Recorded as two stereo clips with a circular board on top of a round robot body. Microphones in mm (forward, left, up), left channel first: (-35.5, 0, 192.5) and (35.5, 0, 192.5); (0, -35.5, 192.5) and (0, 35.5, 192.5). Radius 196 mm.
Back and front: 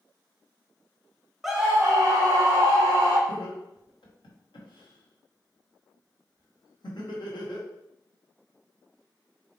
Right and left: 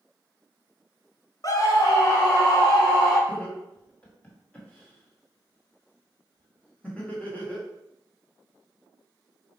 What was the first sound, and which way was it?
A scream, 85° right.